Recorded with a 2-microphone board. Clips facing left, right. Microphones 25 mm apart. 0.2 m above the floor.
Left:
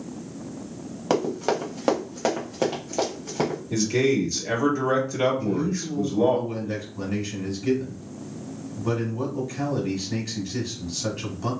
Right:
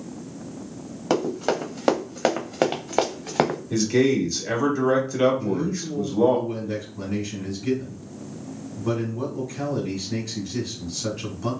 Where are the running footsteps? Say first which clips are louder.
Even; 5° left (ahead or behind), 1.3 m; by 3.6 s 80° right, 1.0 m.